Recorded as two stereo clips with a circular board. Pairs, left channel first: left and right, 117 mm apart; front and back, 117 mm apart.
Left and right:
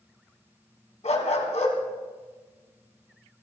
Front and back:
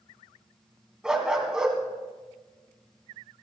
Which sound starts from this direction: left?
A dog barking, at 1.0 s.